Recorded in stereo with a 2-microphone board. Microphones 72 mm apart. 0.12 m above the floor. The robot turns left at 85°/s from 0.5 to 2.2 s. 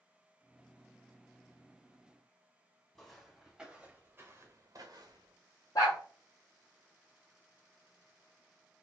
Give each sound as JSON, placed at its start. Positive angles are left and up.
{"t": 3.0, "sound": "footsteps", "side_deg": 5, "distance_m": 1.8}
{"t": 5.8, "sound": "a dog barking", "side_deg": 60, "distance_m": 1.8}